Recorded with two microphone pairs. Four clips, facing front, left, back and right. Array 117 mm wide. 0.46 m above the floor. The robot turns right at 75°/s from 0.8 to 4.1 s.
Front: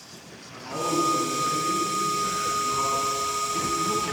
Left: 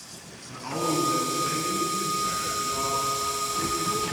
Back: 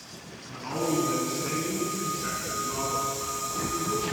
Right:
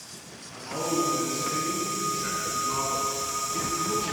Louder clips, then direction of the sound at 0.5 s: Left 2 dB, even; 125° left.